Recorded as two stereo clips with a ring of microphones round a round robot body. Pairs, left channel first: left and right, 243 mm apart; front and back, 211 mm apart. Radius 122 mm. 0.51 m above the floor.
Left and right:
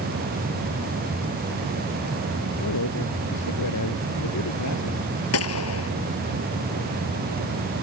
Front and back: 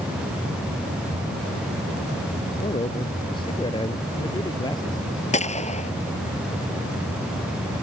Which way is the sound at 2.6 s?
65° left.